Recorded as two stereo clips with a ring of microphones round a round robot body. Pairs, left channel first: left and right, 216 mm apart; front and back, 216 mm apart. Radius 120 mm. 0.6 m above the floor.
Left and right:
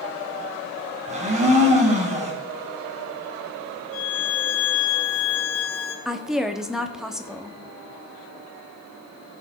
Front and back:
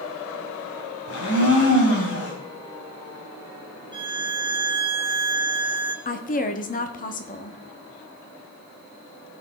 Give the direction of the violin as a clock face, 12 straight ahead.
8 o'clock.